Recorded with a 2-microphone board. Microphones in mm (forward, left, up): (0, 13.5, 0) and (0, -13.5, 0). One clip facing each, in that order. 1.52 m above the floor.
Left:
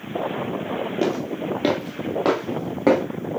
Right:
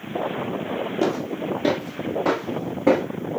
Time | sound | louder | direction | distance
1.0 | footsteps | right 1 dB | 25° left (ahead or behind) | 1.7 m